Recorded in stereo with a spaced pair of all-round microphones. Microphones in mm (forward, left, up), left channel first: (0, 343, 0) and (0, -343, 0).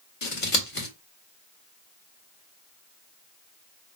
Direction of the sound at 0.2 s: 45° left (ahead or behind).